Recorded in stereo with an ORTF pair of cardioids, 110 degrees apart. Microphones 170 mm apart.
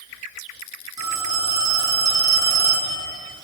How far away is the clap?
I don't hear a clap.